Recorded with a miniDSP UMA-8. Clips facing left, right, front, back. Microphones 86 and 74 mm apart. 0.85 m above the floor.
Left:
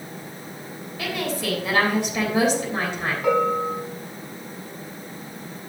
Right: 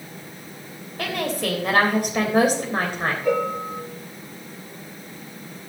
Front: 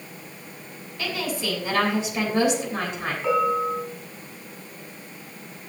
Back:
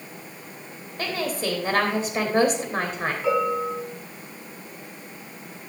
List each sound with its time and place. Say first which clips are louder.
1.0 s a woman speaking: right 2 dB, back 1 dB; 130° right, 3 m
3.2 s a bell: left 4 dB, front 2 dB; 95° left, 4.5 m